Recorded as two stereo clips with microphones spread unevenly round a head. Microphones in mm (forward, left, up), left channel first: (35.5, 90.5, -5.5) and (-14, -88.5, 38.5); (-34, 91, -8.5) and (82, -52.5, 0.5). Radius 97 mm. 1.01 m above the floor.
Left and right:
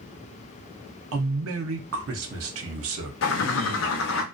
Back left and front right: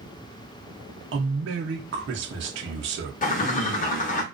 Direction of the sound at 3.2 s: 90° left.